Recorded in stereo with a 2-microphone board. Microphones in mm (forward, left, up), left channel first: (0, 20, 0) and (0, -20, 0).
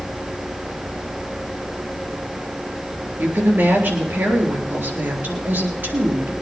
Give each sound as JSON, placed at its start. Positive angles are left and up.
{"t": 3.2, "sound": "a woman speaking", "side_deg": -60, "distance_m": 3.5}